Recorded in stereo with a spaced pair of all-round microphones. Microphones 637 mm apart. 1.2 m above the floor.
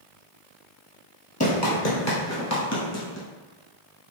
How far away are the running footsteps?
About 1.9 m.